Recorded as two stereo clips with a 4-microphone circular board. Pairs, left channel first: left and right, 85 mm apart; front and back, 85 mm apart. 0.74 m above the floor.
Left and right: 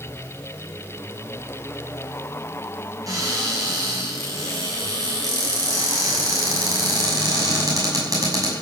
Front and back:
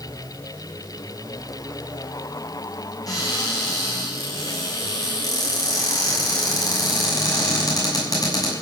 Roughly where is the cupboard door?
Ahead right.